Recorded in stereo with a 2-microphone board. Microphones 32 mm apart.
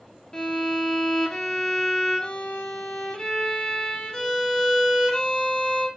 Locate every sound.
0.3 s a violin: 15° left (ahead or behind), 0.6 m